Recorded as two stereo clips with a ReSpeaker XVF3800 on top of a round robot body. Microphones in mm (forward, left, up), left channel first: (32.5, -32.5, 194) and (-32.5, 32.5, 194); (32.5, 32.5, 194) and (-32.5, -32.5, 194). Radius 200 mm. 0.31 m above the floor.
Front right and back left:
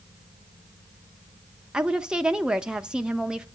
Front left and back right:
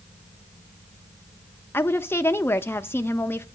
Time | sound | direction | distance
1.7 | a woman speaking | 65° left | 0.9 m